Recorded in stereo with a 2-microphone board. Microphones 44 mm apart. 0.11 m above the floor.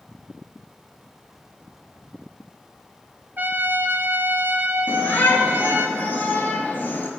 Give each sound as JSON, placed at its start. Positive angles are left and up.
{"t": 3.4, "sound": "a trumpet", "side_deg": -45, "distance_m": 1.8}
{"t": 4.9, "sound": "a shout", "side_deg": 50, "distance_m": 1.8}